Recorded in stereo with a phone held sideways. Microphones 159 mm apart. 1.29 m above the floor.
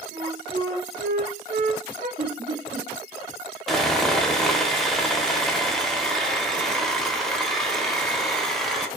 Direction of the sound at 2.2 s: 55° right (ahead or behind).